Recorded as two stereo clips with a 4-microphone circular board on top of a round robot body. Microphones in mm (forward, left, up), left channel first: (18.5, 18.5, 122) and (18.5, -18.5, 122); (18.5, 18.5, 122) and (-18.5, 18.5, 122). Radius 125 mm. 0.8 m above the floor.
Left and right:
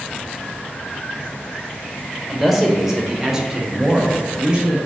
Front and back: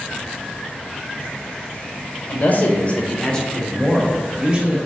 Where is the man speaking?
5° right, 1.1 m; by 4.8 s 140° right, 1.0 m.